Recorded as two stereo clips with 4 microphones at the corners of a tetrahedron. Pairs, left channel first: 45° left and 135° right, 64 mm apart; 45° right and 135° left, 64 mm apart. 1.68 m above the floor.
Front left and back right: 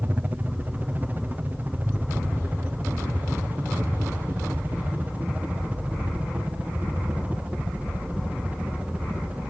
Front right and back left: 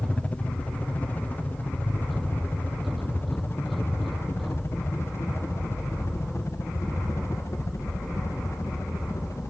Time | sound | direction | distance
0.0 | a helicopter | 100° right | ?